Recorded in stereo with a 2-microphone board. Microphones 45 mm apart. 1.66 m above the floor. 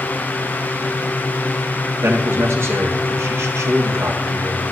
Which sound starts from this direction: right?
A man speaking, at 2.0 s.